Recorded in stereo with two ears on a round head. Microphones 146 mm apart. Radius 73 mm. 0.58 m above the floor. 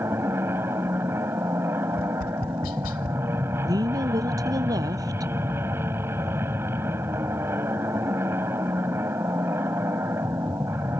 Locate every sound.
0.0 s an aircraft: 15° right (ahead or behind)
1.9 s tapping: 60° left (ahead or behind)
3.6 s a woman speaking: 25° right (ahead or behind)